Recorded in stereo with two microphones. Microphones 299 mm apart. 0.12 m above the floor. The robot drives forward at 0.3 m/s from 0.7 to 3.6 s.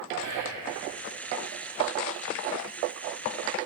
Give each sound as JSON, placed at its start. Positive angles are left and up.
{"t": 0.2, "sound": "whispering", "side_deg": -70, "distance_m": 3.0}